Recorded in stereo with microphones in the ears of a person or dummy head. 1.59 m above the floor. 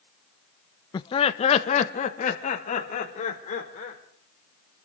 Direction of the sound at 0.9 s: 20° left (ahead or behind).